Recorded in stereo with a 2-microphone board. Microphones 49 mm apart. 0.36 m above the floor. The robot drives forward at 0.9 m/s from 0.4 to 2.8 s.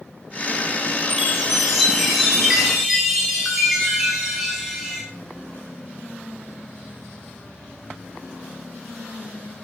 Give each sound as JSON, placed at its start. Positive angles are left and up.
{"t": 1.1, "sound": "a chime", "side_deg": -10, "distance_m": 5.0}